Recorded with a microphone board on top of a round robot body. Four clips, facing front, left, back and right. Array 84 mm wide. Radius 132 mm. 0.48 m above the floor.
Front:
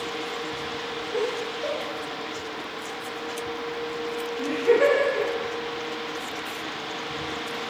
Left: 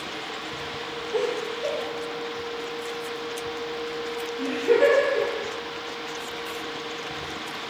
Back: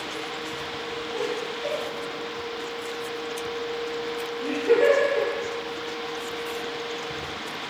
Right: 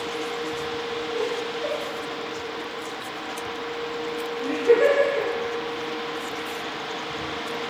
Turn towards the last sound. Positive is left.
turn(degrees=5)